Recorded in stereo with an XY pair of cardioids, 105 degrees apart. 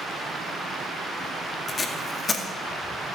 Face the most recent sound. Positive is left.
turn(degrees=45)